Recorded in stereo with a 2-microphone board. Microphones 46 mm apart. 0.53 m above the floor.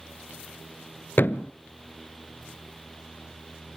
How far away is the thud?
About 0.6 m.